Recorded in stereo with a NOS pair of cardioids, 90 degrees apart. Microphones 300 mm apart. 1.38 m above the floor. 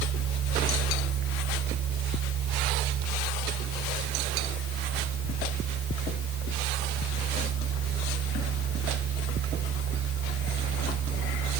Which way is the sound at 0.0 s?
70° right.